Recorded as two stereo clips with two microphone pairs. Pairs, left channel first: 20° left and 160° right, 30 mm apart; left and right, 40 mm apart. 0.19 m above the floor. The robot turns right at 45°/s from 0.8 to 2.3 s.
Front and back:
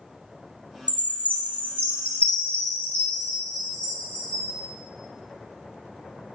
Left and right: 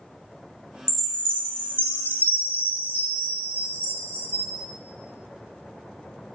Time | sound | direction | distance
0.9 | a chime | straight ahead | 0.9 m